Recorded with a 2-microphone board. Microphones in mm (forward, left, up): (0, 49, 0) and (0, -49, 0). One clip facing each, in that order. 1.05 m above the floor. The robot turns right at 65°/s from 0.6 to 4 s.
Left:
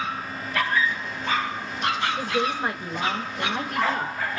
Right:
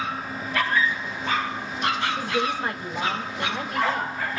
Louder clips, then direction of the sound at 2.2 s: Even; 15° right.